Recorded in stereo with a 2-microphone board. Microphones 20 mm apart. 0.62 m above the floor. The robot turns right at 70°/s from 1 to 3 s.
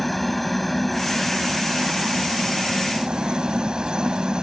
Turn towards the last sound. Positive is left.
turn(degrees=-45)